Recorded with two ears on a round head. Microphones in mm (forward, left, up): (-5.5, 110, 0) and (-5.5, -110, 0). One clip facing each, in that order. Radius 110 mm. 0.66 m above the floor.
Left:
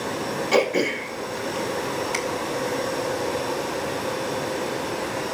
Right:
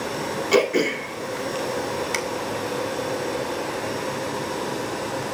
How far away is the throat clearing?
About 1.8 m.